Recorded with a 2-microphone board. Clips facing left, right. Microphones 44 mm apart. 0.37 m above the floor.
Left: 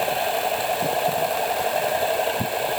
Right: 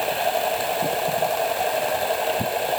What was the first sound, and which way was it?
Only background noise.